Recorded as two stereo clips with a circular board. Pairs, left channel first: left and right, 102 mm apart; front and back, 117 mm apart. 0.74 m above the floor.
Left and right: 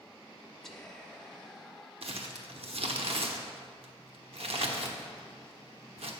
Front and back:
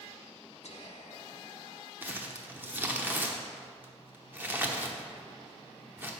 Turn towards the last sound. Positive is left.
turn(degrees=-105)